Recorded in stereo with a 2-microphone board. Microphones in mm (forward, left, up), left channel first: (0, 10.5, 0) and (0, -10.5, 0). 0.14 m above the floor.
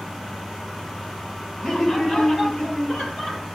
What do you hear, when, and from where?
1.6 s laughter: 20° left (ahead or behind), 3.5 m; by 3.5 s 35° left (ahead or behind), 3 m